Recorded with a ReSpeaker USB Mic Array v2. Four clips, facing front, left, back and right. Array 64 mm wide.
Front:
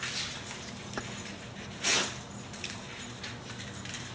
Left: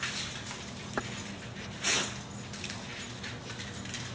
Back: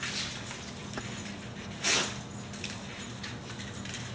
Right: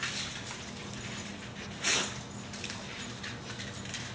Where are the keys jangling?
80° left.